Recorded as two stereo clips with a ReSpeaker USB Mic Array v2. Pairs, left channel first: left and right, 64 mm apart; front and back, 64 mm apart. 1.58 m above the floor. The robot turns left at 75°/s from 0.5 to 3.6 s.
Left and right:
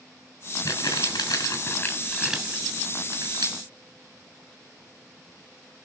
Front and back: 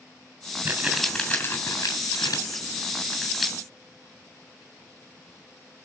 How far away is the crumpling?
About 8.5 m.